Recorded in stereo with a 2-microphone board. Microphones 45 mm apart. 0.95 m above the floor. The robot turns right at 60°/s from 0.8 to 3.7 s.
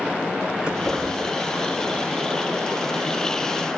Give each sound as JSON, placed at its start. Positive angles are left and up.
{"t": 0.6, "sound": "keys jangling", "side_deg": -20, "distance_m": 8.5}